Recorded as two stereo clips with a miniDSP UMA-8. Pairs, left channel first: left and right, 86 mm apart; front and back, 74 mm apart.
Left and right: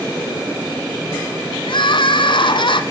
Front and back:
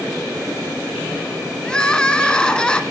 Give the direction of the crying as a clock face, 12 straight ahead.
9 o'clock.